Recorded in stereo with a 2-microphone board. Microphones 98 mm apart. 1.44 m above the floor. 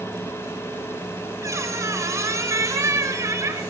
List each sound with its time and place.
1.4 s a squeak: 30° right (ahead or behind), 3 m